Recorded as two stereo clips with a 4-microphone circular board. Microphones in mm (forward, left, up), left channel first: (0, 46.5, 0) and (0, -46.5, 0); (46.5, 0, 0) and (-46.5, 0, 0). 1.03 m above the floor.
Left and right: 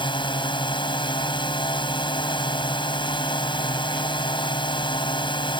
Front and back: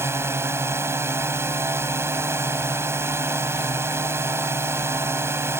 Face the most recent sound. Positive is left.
turn(degrees=120)